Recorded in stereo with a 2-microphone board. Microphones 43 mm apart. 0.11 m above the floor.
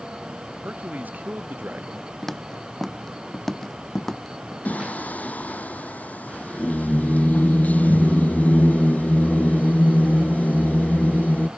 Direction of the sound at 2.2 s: 5° left (ahead or behind).